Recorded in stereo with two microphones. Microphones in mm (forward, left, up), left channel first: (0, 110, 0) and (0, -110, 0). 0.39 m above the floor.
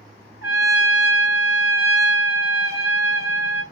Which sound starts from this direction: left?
A trumpet, at 0.4 s.